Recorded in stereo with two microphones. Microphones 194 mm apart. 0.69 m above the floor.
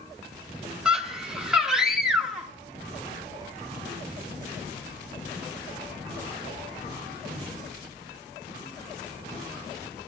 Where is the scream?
5° right (ahead or behind), 0.7 m.